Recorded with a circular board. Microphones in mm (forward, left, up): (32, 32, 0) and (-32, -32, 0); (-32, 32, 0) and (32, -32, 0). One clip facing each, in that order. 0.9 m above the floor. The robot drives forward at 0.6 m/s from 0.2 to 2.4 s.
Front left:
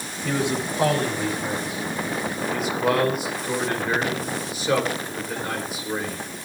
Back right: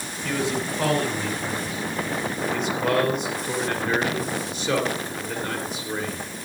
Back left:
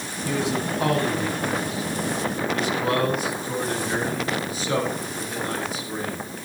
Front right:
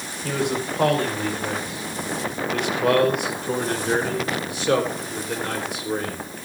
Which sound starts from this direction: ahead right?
A man speaking, at 0.2 s.